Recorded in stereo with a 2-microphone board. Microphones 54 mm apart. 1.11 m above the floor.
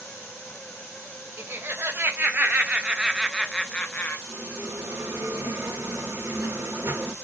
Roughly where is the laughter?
Right.